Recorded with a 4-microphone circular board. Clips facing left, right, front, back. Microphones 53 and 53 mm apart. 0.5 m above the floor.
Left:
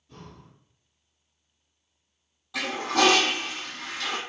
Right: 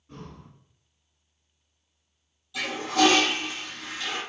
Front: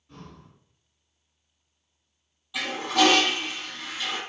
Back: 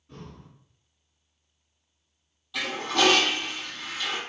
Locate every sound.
0.1 s breathing: 95° right, 1.6 m
2.5 s a toilet flushing: 85° left, 0.8 m